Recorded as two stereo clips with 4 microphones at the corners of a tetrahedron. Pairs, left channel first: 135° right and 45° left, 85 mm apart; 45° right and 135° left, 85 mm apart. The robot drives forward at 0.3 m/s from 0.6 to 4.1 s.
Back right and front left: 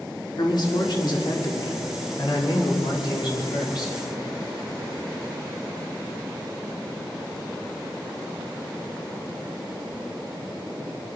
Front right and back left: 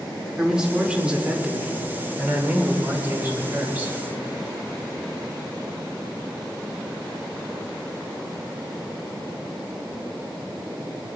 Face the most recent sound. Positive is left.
turn(degrees=-160)